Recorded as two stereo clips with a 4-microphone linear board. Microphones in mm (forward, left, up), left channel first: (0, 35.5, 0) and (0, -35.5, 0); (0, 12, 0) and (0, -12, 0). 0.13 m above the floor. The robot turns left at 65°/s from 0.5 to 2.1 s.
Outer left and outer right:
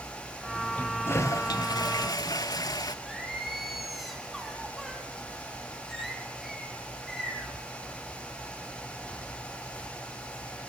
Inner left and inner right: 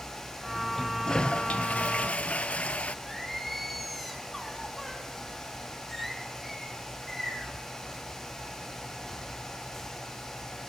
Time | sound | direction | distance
0.8 | a toilet flushing | 160° left | 0.6 m
3.0 | singing | 5° right (ahead or behind) | 3 m